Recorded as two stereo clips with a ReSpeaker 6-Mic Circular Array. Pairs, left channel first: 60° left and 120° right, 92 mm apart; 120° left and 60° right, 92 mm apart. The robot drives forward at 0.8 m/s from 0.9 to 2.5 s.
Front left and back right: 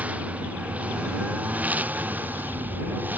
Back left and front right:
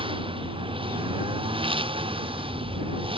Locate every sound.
0.0 s a lawn mower: 45° right; by 3.2 s 50° right